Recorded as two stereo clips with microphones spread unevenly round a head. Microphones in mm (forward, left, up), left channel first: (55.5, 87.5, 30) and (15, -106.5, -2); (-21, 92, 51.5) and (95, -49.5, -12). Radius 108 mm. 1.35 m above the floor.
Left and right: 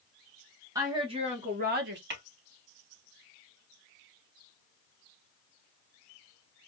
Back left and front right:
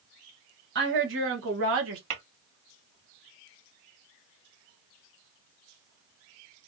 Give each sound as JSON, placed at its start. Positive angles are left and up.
{"t": 0.8, "sound": "a woman speaking", "azimuth_deg": -25, "distance_m": 1.4}
{"t": 2.1, "sound": "tapping", "azimuth_deg": -70, "distance_m": 3.5}